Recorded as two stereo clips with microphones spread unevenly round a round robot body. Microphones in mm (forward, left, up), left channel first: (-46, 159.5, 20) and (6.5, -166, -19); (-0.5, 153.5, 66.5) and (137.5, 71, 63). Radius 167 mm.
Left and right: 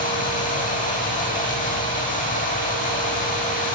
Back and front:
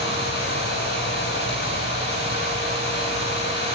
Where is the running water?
165° left, 10 m.